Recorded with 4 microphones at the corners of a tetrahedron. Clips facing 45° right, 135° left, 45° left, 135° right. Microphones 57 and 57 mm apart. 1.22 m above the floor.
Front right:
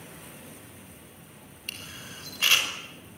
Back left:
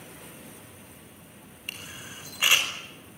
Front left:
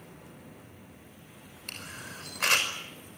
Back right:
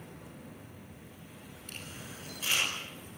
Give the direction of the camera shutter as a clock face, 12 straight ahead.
10 o'clock.